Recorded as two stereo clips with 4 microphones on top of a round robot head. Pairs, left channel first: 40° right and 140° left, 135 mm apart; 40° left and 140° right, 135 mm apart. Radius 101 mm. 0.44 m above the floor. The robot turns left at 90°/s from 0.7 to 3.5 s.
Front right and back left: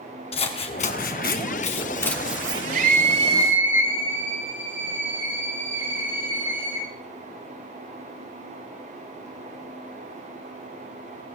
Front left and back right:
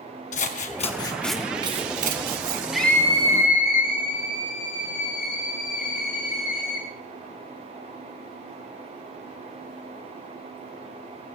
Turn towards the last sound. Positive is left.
turn(degrees=65)